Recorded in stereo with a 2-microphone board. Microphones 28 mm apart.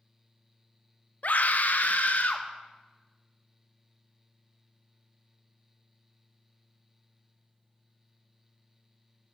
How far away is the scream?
About 1.1 m.